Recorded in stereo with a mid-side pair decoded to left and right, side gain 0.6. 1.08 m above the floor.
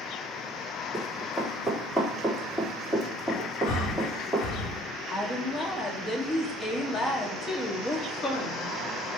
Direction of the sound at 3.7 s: 70° left.